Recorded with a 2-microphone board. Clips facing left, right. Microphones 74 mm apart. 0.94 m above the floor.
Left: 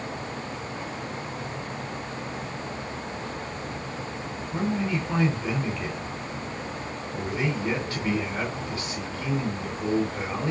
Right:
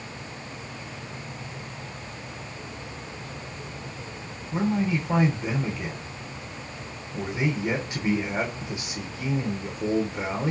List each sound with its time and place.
4.5 s a man speaking: 20° right (ahead or behind), 2.5 m